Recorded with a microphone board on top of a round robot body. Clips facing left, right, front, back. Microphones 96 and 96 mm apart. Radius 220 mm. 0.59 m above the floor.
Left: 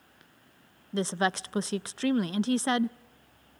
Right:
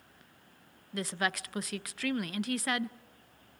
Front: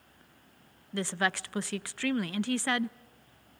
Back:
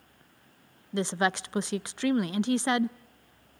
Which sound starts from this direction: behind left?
A woman speaking, at 0.9 s.